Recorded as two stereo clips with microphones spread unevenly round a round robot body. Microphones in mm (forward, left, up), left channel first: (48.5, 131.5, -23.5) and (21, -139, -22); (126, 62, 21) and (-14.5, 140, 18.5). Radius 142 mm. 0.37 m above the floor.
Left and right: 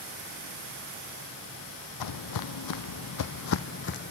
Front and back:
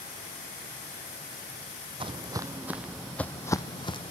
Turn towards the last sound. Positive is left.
turn(degrees=30)